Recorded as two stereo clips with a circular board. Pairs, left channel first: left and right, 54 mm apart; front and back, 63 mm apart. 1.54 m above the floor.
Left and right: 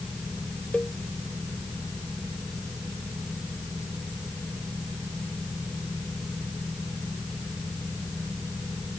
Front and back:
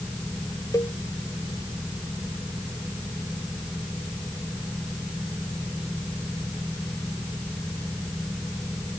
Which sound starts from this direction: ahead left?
A cowbell, at 0.7 s.